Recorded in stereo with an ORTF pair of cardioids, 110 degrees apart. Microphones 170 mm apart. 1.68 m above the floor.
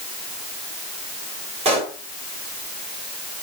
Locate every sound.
1.6 s a pop: 40° right, 3 m